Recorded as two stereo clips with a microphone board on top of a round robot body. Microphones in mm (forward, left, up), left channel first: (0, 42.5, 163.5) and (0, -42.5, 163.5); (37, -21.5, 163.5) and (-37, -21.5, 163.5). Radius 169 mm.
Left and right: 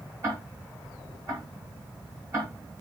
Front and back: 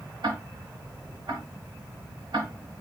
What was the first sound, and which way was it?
Ticking, 150° right.